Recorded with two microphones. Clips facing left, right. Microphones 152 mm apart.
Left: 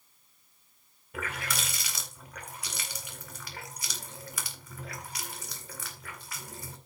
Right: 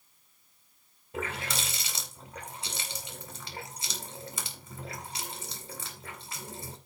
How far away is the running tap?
About 2.5 m.